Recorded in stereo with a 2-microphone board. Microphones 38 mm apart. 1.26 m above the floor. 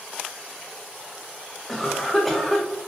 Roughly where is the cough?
Centre.